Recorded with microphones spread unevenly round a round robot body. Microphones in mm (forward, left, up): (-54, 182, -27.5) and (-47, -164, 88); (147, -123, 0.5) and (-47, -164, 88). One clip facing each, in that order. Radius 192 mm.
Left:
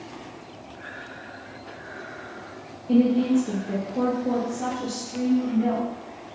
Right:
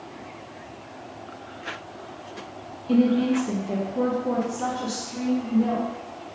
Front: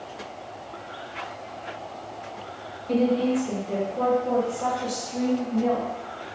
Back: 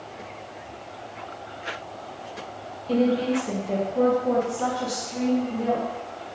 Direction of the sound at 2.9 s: 45° left.